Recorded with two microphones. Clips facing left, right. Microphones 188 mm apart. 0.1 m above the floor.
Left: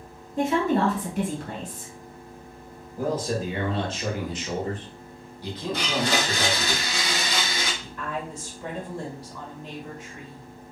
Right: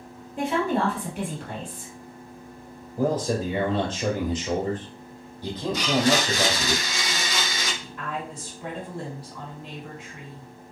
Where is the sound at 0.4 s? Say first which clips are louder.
Left 2 dB; 45° left (ahead or behind), 1.9 m.